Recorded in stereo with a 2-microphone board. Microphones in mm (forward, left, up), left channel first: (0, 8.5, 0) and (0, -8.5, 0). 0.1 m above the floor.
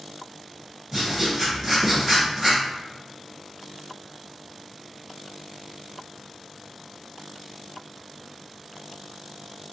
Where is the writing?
25° right (ahead or behind), 1.6 m.